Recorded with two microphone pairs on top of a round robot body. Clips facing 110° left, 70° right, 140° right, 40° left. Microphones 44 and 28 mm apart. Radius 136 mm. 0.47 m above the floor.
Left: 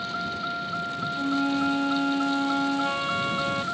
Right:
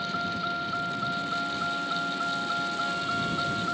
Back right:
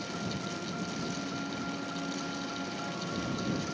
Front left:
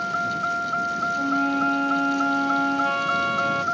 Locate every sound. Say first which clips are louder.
0.0 s a vehicle: even, front left 12 dB; 20° left
1.1 s a flute: left 5 dB, front left 14 dB; 65° left